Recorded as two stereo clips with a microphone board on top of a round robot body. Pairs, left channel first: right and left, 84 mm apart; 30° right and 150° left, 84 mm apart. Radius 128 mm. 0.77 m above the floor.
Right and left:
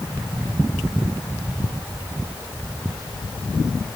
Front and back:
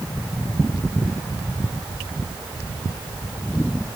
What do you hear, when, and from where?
Only background noise.